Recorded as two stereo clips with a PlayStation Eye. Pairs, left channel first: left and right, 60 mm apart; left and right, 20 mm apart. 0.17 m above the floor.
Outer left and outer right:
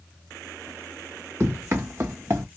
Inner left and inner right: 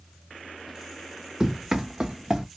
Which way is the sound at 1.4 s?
35° right (ahead or behind).